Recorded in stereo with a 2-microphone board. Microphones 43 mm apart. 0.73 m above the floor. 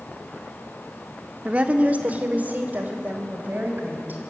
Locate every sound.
1.4 s a woman speaking: 30° right (ahead or behind), 1.6 m; by 4.2 s 45° right (ahead or behind), 5 m